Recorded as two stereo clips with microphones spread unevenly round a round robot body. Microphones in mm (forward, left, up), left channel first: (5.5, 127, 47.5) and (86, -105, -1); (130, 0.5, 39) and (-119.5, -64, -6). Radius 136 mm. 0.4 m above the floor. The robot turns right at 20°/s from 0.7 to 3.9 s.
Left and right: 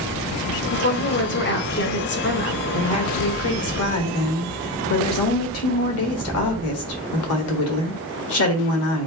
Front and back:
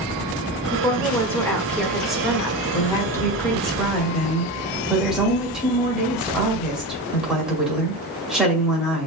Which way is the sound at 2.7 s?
95° left.